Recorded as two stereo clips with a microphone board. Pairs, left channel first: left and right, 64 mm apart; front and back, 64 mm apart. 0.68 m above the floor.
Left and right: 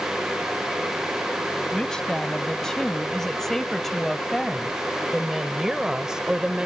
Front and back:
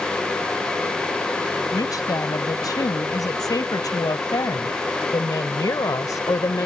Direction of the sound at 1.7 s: 10° left.